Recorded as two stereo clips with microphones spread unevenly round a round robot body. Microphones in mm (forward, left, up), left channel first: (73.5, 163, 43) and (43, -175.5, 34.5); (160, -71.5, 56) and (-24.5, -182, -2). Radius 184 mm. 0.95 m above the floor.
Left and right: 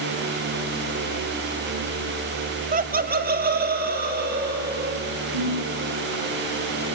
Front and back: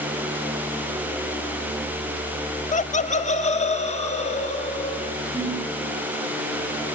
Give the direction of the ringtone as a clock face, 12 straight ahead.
3 o'clock.